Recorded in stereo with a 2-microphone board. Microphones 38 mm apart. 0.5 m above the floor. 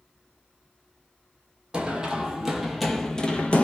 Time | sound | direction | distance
1.7 | running footsteps | 25° right (ahead or behind) | 1.0 m